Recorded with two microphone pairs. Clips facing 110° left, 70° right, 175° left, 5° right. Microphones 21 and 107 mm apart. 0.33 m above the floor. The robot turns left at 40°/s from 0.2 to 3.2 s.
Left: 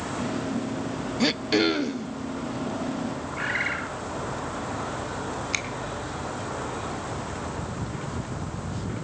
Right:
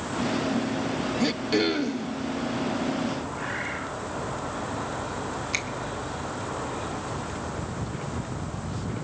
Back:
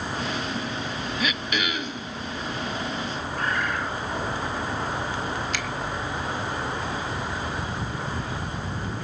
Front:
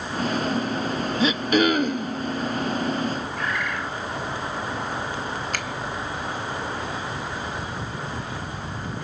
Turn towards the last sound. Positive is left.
turn(degrees=35)